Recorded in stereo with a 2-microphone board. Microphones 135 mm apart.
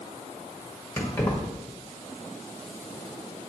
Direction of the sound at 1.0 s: 15° left (ahead or behind).